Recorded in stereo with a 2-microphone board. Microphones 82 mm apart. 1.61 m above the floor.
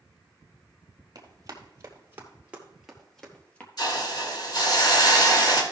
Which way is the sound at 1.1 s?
45° right (ahead or behind).